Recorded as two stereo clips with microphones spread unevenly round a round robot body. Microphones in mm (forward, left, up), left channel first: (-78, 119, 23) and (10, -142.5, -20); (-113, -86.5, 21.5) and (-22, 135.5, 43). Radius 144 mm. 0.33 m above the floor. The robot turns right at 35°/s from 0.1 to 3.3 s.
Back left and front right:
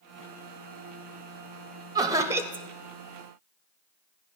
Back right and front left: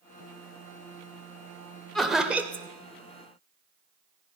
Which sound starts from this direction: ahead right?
Laughter, at 1.9 s.